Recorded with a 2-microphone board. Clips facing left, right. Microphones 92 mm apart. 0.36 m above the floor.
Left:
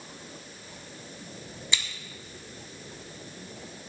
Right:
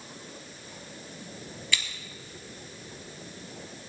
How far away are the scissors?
About 1.4 m.